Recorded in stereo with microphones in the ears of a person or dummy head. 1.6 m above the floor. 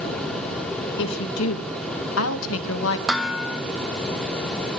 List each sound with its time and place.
1.0 s a woman speaking: 70° left (ahead or behind), 2 m; by 3.0 s 75° left (ahead or behind), 2.0 m
3.1 s dishes clattering: 5° right (ahead or behind), 1.2 m